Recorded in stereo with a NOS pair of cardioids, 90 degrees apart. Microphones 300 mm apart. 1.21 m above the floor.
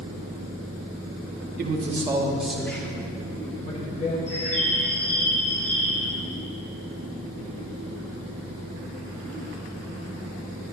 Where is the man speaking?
35° right, 2 m; by 4.2 s 25° left, 4.5 m.